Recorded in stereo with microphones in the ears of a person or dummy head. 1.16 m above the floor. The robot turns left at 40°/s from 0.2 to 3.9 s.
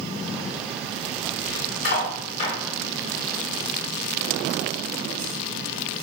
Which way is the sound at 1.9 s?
65° left (ahead or behind).